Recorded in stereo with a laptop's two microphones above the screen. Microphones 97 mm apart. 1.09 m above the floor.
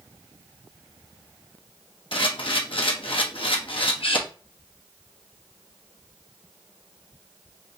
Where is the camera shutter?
65° left (ahead or behind), 0.9 m.